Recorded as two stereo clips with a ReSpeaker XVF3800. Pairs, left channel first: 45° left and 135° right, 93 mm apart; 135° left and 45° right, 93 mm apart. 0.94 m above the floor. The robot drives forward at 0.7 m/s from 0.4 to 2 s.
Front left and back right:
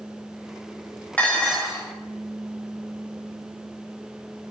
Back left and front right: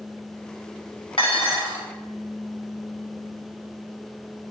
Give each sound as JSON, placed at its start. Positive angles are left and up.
{"t": 1.2, "sound": "dishes clattering", "azimuth_deg": 120, "distance_m": 0.8}